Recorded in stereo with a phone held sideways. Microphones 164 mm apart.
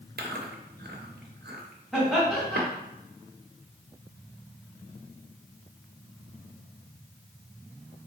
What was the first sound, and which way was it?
Chewing, 70° right (ahead or behind).